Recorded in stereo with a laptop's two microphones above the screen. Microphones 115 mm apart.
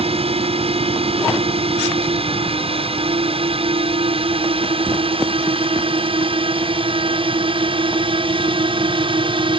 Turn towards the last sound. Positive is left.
turn(degrees=-50)  # may be behind; listen again after turning